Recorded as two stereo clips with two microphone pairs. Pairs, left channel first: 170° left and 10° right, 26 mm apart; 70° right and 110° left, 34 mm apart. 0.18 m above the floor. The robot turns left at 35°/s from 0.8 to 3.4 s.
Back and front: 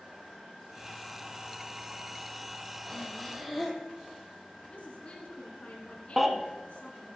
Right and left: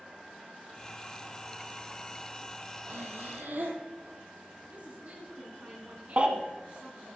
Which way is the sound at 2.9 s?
95° left.